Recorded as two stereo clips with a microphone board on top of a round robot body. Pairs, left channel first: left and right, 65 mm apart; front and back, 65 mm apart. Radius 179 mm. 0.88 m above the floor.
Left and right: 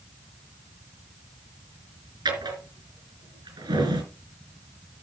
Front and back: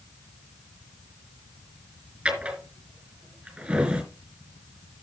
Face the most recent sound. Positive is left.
turn(degrees=-105)